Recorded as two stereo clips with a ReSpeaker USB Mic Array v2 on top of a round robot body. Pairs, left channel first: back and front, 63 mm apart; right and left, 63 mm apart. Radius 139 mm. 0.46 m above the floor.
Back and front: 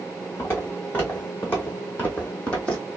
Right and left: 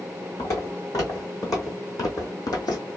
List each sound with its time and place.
0.4 s footsteps: 125° right, 3 m; by 2.9 s 105° right, 1.4 m